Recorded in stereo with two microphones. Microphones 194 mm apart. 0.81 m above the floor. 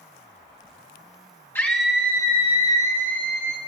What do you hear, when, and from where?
1.6 s a scream: 10° left (ahead or behind), 0.7 m; by 3.6 s 55° right (ahead or behind), 1.3 m